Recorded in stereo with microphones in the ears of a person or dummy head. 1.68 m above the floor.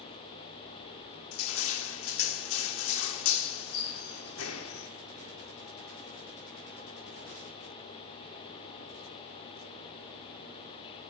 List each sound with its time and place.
1.3 s crushing: 85° left, 1.0 m